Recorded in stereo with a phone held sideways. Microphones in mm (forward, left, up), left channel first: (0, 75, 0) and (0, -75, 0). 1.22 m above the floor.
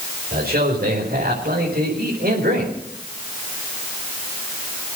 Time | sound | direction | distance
0.3 | a man speaking | 75° right (ahead or behind) | 5 m